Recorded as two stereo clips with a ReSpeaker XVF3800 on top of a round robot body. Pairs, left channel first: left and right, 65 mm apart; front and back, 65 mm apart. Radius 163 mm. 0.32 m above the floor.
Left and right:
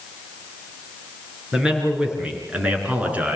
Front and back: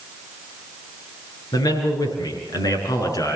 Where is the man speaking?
10° right, 7 m; by 3.4 s 25° right, 6 m.